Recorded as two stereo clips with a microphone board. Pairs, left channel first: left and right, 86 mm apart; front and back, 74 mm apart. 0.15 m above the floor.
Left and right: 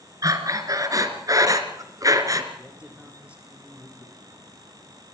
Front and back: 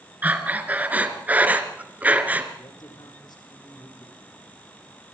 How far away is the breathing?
About 2.5 m.